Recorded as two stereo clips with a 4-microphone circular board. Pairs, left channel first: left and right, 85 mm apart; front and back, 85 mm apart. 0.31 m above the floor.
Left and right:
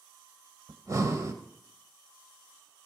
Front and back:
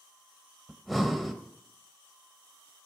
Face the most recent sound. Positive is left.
turn(degrees=-90)